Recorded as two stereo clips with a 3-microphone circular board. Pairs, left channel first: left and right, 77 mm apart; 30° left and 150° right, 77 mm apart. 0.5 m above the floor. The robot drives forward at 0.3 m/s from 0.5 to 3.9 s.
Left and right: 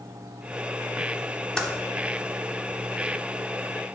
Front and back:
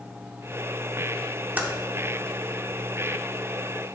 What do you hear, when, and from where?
1.6 s typing on a keyboard: 165° left, 1.1 m